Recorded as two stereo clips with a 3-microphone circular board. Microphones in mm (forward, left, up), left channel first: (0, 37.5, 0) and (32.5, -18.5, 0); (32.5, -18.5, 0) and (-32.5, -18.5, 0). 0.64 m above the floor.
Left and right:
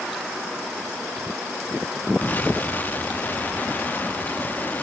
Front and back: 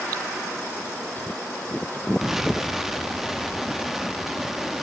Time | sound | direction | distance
2.2 | an explosion | 100° left | 0.7 m